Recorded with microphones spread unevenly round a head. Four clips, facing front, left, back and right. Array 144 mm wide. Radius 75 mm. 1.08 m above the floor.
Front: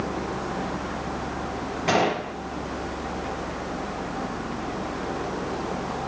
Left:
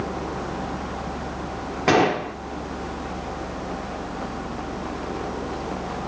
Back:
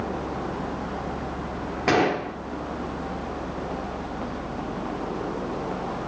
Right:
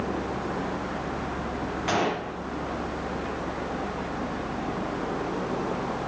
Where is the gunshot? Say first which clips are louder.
Left 9 dB, back 1 dB; 105° left, 3 m.